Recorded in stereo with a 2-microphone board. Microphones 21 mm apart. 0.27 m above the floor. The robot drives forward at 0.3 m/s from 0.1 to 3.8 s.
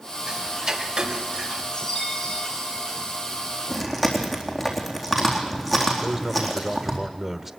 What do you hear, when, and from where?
0.3 s ticking: 45° right (ahead or behind), 2 m
1.7 s a chime: 35° left (ahead or behind), 9.5 m
3.7 s chewing: 5° right (ahead or behind), 4 m
6.0 s a man speaking: 25° right (ahead or behind), 1.0 m